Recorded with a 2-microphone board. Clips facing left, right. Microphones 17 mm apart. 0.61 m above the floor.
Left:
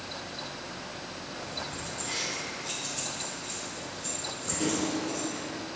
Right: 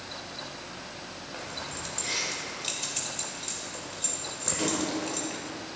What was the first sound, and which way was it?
Keys jangling, 75° right (ahead or behind).